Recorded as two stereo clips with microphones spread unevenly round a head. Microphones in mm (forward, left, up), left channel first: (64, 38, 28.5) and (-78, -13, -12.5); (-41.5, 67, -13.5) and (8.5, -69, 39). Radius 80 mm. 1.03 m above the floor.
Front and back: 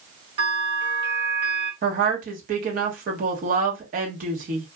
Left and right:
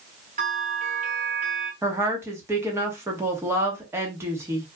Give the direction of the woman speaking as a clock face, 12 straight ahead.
5 o'clock.